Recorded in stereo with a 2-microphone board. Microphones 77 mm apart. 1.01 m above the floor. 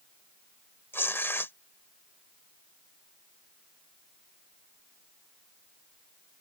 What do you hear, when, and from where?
0.9 s tearing paper: 30° left (ahead or behind)